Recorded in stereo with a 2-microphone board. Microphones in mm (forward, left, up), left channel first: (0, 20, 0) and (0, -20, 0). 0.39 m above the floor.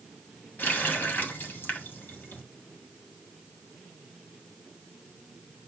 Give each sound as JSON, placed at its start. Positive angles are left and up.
{"t": 0.6, "sound": "a running tap", "side_deg": 50, "distance_m": 1.9}